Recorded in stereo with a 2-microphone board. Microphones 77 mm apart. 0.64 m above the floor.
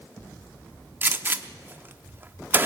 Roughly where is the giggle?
I don't hear a giggle.